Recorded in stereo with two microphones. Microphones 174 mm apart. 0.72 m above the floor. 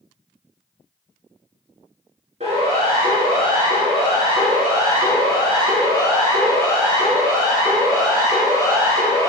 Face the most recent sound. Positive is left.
turn(degrees=-30)  # may be behind; listen again after turning